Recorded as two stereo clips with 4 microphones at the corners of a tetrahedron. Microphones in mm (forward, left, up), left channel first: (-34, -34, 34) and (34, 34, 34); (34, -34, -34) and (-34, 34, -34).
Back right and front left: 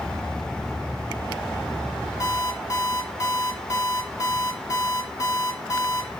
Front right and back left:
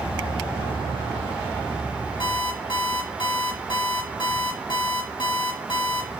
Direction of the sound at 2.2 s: 80° right.